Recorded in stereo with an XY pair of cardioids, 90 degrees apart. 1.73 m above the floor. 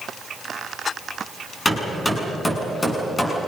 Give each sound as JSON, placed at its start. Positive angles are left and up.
{"t": 1.6, "sound": "hammering", "azimuth_deg": 20, "distance_m": 7.5}